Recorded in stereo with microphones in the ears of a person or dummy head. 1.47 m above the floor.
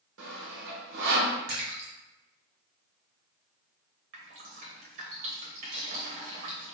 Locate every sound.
0.2 s sawing: 65° right (ahead or behind), 0.9 m
1.5 s a splash: 55° right (ahead or behind), 0.9 m
4.1 s dripping: 40° right (ahead or behind), 0.7 m